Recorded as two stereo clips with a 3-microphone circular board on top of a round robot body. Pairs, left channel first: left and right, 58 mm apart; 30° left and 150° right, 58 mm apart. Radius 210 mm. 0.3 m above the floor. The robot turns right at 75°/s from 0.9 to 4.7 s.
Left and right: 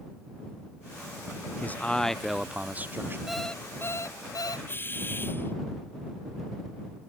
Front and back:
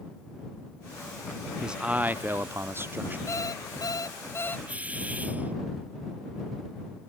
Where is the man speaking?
135° left; by 3.2 s 110° right.